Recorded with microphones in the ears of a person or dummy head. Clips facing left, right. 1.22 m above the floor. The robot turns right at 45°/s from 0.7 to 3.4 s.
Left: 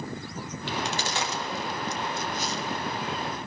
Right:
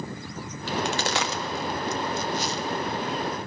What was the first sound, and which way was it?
A crack, 30° right (ahead or behind).